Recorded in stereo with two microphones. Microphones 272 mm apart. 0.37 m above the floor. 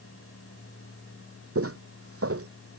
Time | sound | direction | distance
1.6 | footsteps | 65° right (ahead or behind) | ?